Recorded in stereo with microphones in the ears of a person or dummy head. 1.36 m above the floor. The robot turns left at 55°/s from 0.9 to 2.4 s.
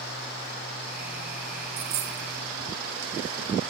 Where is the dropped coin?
35° right (ahead or behind), 0.7 m; by 2.3 s 30° right (ahead or behind), 0.7 m.